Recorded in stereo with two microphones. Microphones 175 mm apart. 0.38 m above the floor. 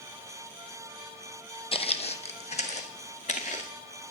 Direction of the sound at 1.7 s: 30° left (ahead or behind).